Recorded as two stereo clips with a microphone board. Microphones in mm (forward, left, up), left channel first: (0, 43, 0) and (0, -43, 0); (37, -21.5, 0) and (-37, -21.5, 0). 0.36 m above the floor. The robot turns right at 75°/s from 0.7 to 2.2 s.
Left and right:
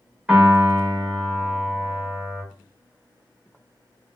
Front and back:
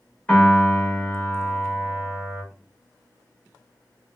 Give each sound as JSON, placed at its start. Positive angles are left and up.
{"t": 0.3, "sound": "a piano", "azimuth_deg": -45, "distance_m": 1.2}